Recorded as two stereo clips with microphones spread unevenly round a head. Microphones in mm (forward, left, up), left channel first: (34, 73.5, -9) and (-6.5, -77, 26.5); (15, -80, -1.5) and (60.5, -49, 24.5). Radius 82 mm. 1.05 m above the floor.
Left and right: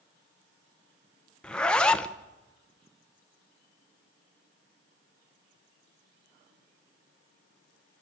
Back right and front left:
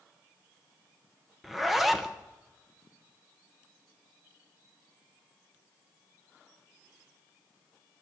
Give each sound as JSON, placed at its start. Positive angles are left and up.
{"t": 1.4, "sound": "a zipper", "azimuth_deg": 145, "distance_m": 0.8}